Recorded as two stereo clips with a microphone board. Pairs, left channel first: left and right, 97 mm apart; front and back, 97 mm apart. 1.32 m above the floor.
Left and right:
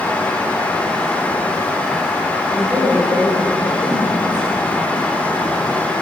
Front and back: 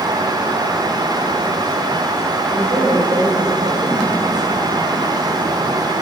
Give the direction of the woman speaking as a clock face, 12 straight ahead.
5 o'clock.